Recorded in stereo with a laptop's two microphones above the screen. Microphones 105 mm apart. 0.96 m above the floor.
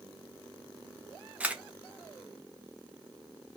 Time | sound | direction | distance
1.4 | a camera shutter | 15° right (ahead or behind) | 0.6 m